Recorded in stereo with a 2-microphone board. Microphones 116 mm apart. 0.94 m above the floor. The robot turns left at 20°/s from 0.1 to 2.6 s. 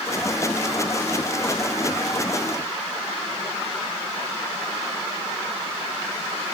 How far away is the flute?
I don't hear a flute.